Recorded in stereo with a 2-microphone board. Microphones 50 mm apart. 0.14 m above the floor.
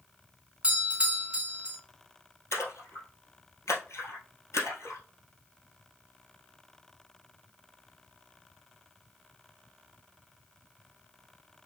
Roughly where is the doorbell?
Centre.